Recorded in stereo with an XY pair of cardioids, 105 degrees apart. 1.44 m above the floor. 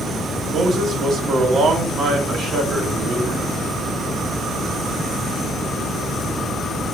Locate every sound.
0.5 s a man speaking: 55° right, 1.5 m